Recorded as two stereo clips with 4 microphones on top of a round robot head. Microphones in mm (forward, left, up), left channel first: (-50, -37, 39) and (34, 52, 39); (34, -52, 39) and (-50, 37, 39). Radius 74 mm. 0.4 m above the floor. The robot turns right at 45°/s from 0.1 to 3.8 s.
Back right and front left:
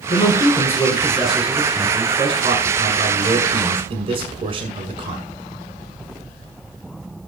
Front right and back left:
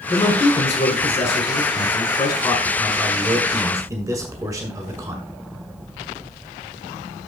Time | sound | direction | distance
0.1 | a man speaking | 105° right | 1.8 m